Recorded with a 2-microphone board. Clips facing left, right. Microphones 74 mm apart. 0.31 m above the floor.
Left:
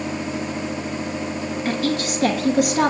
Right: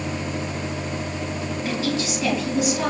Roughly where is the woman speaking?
Left.